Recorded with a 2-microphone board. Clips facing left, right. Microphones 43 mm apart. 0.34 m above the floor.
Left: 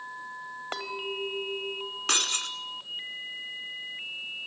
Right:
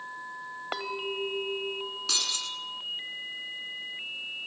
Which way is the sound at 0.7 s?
10° right (ahead or behind).